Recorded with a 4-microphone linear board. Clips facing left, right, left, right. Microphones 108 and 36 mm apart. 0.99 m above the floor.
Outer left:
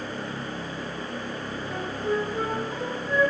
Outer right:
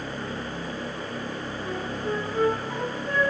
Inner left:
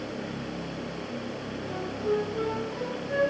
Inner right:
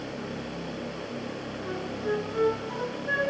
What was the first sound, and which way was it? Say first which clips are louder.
A flute: outer left 2 dB, inner left 1 dB; 75° right (ahead or behind).